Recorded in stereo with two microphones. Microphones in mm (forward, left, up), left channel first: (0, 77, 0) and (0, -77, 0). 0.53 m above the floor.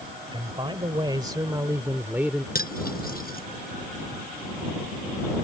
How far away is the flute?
I don't hear a flute.